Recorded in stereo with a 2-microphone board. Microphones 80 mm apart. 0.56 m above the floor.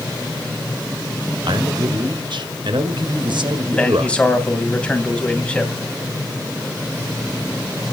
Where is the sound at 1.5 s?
70° right (ahead or behind), 1.9 m.